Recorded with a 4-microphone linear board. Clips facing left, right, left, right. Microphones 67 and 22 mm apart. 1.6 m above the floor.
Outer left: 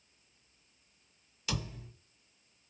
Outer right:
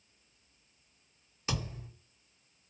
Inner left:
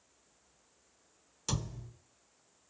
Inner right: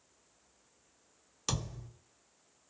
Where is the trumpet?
No trumpet in this recording.